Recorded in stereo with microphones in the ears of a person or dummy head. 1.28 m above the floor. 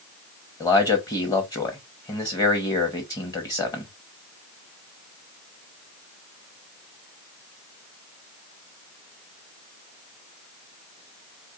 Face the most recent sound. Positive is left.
turn(degrees=15)  # may be behind; listen again after turning